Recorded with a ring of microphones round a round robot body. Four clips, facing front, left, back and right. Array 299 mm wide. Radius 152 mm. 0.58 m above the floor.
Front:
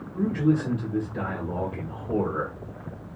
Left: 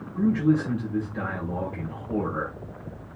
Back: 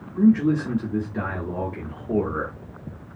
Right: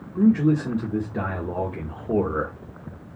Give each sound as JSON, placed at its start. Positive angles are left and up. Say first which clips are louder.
{"t": 0.1, "sound": "a man speaking", "louder": "right 3 dB, back 5 dB", "azimuth_deg": -95, "distance_m": 1.3}